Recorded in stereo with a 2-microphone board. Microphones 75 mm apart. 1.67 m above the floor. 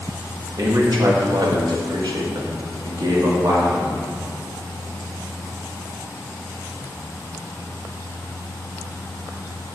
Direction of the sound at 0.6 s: 55° right (ahead or behind).